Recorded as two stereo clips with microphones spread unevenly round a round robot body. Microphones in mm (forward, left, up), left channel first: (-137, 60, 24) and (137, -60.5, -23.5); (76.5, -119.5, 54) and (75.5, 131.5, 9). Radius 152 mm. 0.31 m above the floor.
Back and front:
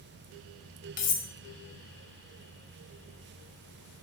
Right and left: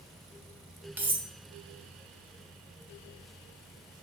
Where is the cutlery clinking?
120° left, 0.6 m.